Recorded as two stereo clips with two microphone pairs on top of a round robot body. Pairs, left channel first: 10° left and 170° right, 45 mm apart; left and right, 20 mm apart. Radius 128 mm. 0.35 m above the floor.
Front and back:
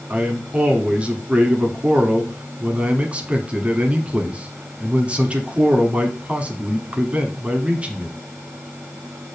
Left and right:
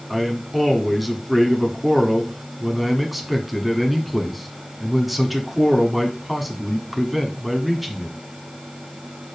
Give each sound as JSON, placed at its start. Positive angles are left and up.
{"t": 0.1, "sound": "a man speaking", "azimuth_deg": -175, "distance_m": 1.6}